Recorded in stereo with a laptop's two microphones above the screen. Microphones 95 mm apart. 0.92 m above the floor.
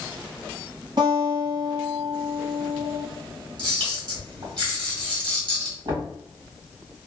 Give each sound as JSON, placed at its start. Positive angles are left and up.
{"t": 1.0, "sound": "a guitar", "side_deg": -55, "distance_m": 1.2}
{"t": 3.6, "sound": "a camera shutter", "side_deg": -50, "distance_m": 1.5}
{"t": 5.8, "sound": "knocking", "side_deg": -50, "distance_m": 1.6}